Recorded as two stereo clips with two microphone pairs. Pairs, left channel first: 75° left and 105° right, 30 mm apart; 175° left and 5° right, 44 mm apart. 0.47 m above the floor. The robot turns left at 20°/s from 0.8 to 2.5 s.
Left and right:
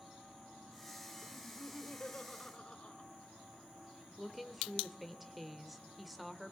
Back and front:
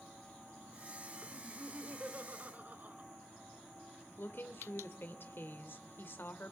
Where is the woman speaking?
165° left, 1.4 m.